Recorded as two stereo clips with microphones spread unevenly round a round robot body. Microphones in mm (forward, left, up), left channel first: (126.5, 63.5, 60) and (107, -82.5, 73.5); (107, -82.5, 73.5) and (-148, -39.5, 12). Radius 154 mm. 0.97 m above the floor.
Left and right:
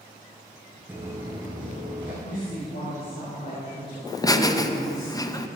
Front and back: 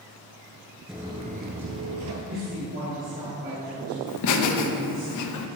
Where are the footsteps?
65° right, 0.9 m; by 2.1 s 165° right, 1.5 m.